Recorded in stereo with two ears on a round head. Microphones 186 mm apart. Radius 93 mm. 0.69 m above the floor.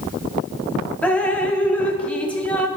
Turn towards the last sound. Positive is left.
turn(degrees=5)  # may be behind; listen again after turning